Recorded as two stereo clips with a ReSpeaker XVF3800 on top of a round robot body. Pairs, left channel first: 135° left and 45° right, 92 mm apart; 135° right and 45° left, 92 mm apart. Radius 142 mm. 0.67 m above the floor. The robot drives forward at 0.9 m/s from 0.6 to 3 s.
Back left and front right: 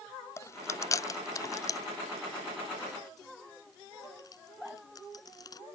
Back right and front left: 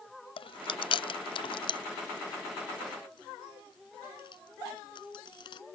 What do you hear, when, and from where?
0.4 s chewing: 165° right; by 5.6 s 175° right